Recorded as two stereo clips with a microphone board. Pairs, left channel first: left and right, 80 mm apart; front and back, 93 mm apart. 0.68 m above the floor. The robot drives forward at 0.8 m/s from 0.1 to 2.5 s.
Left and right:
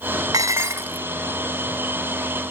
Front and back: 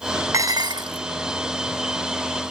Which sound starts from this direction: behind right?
Dishes clattering, at 0.3 s.